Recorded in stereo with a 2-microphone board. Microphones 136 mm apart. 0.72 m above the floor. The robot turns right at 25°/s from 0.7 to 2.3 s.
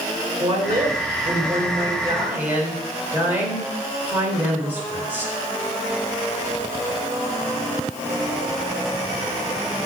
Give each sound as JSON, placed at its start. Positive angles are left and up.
{"t": 0.4, "sound": "a woman speaking", "azimuth_deg": -55, "distance_m": 2.5}